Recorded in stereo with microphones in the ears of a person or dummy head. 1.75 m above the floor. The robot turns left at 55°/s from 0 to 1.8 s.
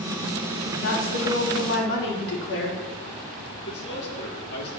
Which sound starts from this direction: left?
A man speaking, at 3.6 s.